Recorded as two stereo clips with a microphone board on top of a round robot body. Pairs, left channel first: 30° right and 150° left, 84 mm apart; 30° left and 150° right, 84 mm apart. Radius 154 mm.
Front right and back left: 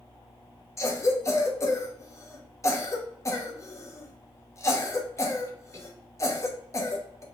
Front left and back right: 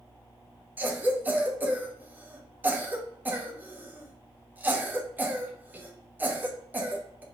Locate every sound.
0.8 s a cough: 85° right, 1.1 m